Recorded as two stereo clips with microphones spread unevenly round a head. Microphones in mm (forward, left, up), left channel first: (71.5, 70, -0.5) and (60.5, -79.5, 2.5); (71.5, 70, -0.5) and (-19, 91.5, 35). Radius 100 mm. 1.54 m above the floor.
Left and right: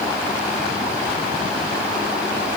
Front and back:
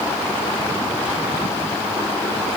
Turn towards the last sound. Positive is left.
No sound to turn to.